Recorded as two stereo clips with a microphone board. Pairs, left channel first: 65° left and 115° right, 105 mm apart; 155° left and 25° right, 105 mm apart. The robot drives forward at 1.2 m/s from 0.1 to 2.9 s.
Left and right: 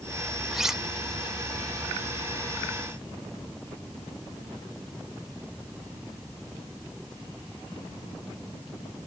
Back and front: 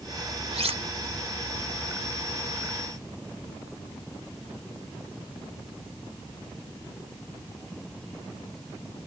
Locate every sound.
0.5 s cutlery clinking: 25° right; by 0.8 s 30° right